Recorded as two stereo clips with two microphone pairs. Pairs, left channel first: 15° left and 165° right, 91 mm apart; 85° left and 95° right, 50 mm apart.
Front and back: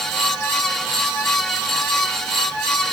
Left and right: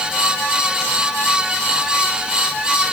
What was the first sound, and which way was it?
Only background noise.